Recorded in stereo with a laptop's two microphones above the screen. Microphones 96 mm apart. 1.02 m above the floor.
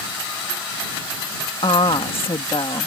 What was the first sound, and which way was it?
A woman speaking, 70° left (ahead or behind).